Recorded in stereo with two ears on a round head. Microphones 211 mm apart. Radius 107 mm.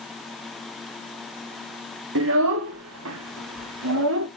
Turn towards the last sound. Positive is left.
turn(degrees=-60)  # may be behind; listen again after turning